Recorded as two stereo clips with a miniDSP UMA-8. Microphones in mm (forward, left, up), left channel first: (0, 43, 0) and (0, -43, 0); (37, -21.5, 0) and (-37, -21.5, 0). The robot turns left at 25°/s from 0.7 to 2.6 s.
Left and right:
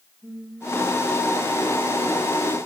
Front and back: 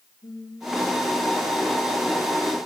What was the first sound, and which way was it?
Singing, 25° right.